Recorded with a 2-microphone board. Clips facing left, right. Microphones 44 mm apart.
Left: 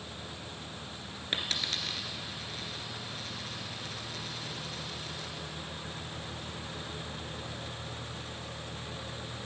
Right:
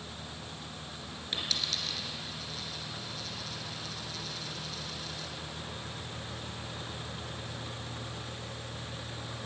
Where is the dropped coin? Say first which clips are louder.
Left 1 dB; 40° left (ahead or behind), 1.8 m.